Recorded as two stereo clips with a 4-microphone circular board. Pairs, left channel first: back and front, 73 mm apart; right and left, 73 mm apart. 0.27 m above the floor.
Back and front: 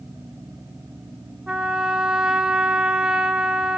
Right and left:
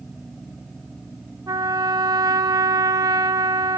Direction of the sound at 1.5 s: 80° left.